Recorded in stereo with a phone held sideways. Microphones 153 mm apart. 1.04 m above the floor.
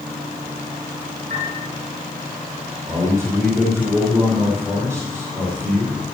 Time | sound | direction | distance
1.3 | a piano | 60° right (ahead or behind) | 6 m
2.9 | a man speaking | 20° right (ahead or behind) | 4.5 m